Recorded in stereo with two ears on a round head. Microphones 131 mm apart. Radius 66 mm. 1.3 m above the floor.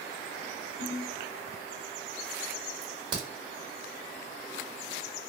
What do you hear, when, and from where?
0.8 s a ringtone: 5° right (ahead or behind), 1.6 m
2.8 s a crack: 30° right (ahead or behind), 1.2 m